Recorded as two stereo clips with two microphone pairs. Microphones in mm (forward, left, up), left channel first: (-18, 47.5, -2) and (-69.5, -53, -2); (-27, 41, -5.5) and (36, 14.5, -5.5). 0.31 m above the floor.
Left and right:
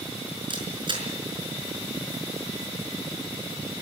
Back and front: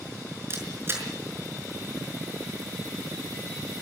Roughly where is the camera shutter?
Right.